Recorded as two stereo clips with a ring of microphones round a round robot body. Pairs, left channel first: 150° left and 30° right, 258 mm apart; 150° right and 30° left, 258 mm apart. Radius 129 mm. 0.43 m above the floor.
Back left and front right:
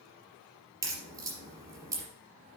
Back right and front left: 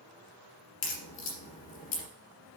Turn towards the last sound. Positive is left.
turn(degrees=-110)